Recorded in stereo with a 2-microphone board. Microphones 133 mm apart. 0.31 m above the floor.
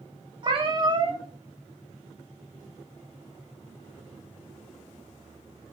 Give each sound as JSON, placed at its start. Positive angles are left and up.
{"t": 0.4, "sound": "a cat meowing", "side_deg": -35, "distance_m": 0.5}